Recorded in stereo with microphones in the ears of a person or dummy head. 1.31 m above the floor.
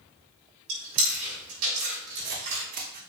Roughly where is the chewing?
Right.